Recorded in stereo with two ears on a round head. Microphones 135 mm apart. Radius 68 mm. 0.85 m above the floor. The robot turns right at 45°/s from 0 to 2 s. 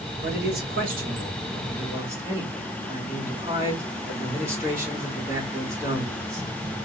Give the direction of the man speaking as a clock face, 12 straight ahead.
3 o'clock.